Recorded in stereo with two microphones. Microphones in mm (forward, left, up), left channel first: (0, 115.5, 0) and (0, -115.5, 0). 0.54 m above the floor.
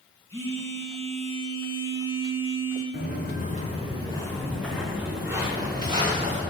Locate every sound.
0.3 s a phone buzzing: 10° left (ahead or behind), 3.5 m
2.9 s footsteps: 50° left (ahead or behind), 3 m; by 6.4 s 25° right (ahead or behind), 5 m